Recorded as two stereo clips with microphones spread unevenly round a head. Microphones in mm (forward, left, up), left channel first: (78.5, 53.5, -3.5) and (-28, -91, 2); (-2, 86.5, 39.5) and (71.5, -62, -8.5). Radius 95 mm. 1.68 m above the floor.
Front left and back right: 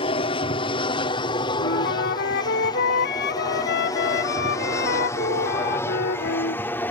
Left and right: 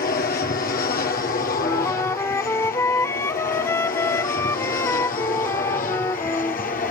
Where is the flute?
60° left.